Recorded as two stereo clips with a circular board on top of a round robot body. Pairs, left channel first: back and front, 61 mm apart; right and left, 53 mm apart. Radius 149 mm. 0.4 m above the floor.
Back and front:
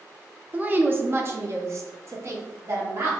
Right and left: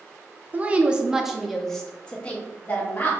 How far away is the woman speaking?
About 0.9 m.